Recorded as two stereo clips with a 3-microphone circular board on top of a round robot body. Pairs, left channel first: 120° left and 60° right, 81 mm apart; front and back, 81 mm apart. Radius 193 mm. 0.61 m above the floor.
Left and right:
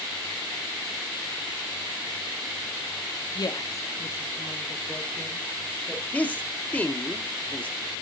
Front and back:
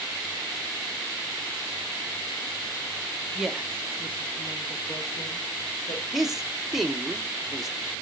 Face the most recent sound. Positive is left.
turn(degrees=100)